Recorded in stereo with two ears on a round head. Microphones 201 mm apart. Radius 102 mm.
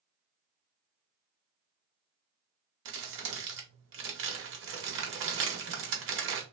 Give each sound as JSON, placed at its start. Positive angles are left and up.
{"t": 2.9, "sound": "crumpling", "side_deg": -55, "distance_m": 0.9}